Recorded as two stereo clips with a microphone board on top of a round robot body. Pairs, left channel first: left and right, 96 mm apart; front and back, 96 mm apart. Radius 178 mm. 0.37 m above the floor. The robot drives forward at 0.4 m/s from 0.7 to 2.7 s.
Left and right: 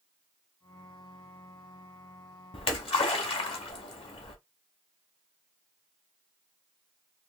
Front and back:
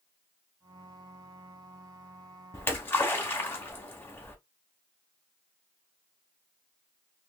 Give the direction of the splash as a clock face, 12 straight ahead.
10 o'clock.